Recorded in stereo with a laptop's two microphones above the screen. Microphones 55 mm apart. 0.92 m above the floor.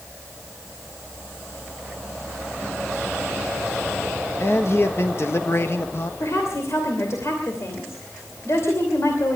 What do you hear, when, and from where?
4.4 s a man speaking: 50° left (ahead or behind), 1.0 m
6.2 s a woman speaking: 60° left (ahead or behind), 2.5 m